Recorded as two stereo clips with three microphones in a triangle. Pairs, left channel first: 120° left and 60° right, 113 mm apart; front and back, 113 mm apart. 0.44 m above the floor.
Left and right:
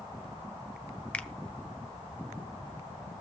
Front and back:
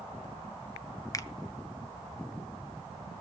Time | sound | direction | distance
1.1 | a finger snap | 45° left | 1.1 m